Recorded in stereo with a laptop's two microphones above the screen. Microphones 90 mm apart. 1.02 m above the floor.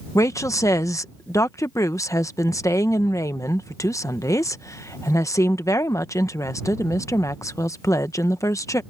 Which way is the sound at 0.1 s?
35° left (ahead or behind).